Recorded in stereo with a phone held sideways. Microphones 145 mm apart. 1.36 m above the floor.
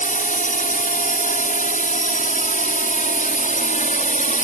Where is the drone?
75° left (ahead or behind); by 4.4 s 70° left (ahead or behind).